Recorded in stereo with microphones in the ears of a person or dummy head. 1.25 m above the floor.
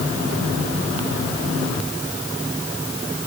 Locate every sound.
Only background noise.